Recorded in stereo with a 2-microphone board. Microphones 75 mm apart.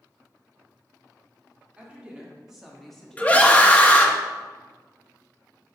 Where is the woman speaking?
15° right (ahead or behind), 2 m; by 4.2 s 40° left (ahead or behind), 1.0 m.